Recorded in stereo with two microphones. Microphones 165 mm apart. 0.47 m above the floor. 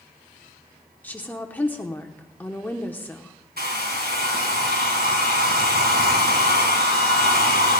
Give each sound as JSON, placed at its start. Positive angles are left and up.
{"t": 1.0, "sound": "a woman speaking", "side_deg": 10, "distance_m": 0.9}
{"t": 3.6, "sound": "a hair dryer", "side_deg": -80, "distance_m": 2.0}